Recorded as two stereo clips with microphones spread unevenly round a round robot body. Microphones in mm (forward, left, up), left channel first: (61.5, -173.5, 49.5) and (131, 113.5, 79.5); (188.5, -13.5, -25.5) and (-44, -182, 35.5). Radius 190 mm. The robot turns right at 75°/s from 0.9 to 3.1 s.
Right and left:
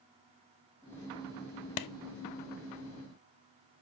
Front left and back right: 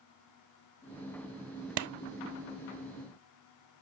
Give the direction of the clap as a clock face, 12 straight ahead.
4 o'clock.